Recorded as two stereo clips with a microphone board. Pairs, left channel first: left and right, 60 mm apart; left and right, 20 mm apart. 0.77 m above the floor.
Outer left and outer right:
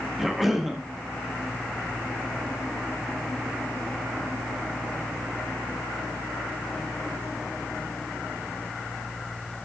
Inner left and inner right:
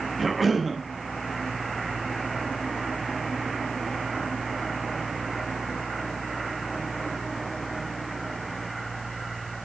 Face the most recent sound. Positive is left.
turn(degrees=0)  # may be behind; listen again after turning